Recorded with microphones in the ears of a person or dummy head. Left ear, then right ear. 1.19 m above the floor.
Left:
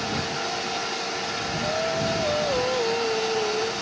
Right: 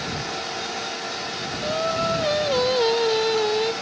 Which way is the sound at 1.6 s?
75° right (ahead or behind).